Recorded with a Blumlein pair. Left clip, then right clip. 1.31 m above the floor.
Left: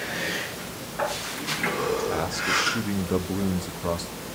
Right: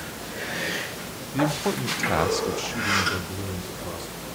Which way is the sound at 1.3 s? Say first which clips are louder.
Right 5 dB; 50° right.